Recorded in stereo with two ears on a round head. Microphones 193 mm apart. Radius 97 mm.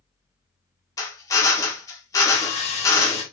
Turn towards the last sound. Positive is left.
turn(degrees=30)  # may be behind; listen again after turning